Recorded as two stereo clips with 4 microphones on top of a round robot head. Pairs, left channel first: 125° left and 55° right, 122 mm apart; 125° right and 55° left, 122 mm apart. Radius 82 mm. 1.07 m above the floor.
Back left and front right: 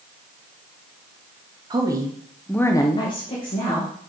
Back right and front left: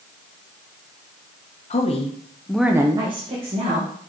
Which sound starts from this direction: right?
A woman speaking, at 1.7 s.